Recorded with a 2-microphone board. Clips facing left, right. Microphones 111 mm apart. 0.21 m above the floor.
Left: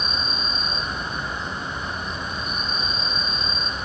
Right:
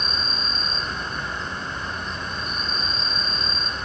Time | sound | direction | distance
0.0 | an insect | 10° left (ahead or behind) | 0.8 m